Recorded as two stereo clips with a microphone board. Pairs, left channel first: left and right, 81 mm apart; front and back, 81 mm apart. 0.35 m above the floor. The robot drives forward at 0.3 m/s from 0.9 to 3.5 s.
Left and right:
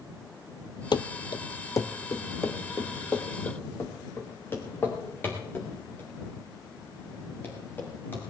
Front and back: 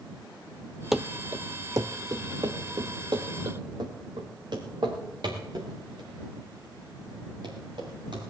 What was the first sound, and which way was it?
Running footsteps, 95° left.